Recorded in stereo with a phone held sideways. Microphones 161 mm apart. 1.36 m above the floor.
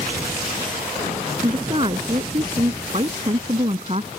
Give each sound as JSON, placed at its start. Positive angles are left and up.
{"t": 1.4, "sound": "a woman speaking", "side_deg": -35}